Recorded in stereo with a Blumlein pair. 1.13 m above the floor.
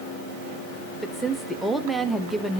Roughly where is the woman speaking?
Ahead.